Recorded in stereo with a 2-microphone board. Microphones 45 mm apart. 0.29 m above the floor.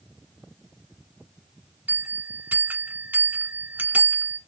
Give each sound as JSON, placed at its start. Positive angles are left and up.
{"t": 1.9, "sound": "a bell", "side_deg": -40, "distance_m": 1.0}